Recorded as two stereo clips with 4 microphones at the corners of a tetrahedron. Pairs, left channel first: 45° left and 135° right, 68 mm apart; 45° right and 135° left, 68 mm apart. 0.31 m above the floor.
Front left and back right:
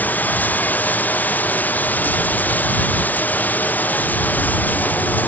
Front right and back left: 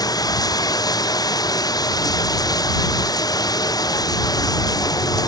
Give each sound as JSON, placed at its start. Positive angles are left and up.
{"t": 0.0, "sound": "running water", "azimuth_deg": -20}